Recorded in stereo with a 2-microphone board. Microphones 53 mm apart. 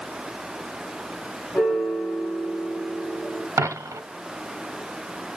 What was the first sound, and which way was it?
A piano, 50° left (ahead or behind).